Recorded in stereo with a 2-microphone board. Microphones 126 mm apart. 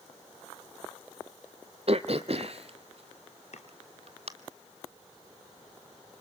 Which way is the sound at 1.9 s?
55° right (ahead or behind).